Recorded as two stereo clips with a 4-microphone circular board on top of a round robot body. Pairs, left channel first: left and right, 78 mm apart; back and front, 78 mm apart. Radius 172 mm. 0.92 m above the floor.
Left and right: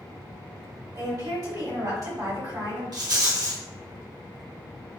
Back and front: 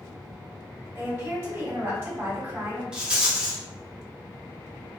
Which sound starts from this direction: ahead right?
A woman speaking, at 0.9 s.